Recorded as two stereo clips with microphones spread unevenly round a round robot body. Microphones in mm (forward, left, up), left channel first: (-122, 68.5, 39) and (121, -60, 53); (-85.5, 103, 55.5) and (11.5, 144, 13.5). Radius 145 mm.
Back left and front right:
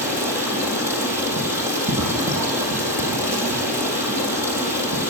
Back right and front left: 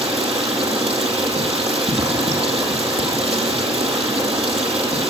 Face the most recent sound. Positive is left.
turn(degrees=55)